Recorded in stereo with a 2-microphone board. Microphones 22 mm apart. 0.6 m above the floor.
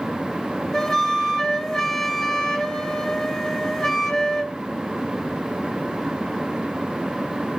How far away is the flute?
About 1.9 m.